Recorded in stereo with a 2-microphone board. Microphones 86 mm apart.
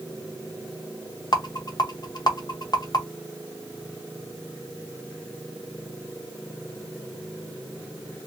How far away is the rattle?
About 0.8 m.